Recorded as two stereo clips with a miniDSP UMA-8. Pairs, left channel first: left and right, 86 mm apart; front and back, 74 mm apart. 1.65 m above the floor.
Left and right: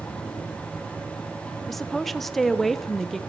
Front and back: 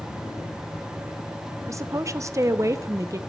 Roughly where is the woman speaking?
Behind.